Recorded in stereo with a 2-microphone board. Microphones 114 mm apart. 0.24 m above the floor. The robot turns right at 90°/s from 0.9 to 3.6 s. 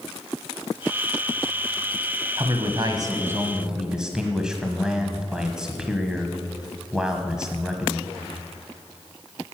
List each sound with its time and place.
2.4 s a man speaking: 120° right, 1.2 m; by 8.1 s 10° right, 1.2 m